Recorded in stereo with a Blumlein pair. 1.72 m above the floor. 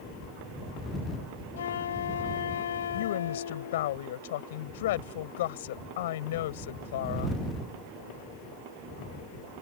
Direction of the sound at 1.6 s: 65° left.